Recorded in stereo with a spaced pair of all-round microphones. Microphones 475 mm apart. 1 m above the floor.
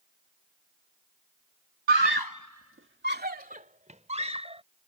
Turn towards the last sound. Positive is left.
turn(degrees=-10)  # may be behind; listen again after turning